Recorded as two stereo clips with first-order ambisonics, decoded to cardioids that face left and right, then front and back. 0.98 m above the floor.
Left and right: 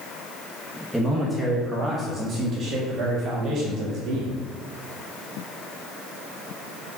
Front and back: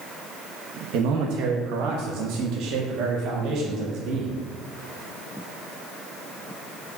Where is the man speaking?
Straight behind, 1.2 m; by 4.4 s 135° right, 2.5 m.